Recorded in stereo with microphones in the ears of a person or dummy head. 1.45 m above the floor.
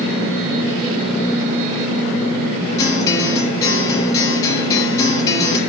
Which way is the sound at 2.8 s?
20° left (ahead or behind).